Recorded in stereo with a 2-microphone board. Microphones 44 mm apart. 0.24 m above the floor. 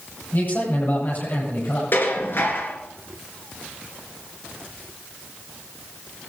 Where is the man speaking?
45° left (ahead or behind), 8 m.